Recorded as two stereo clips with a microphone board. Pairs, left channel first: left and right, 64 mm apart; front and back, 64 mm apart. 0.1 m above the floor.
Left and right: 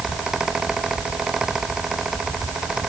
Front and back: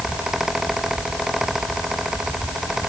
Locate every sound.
Only background noise.